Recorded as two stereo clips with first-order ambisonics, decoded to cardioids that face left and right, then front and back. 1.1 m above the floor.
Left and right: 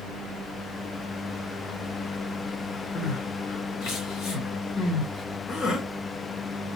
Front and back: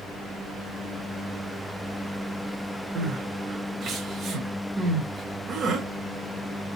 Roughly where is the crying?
Behind left.